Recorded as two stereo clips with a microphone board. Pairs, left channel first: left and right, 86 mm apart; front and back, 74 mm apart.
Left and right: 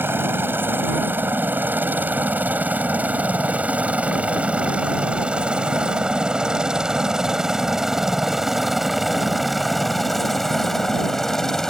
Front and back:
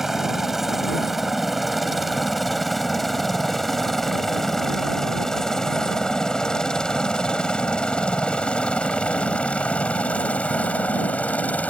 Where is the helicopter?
100° right; by 11.7 s 15° left.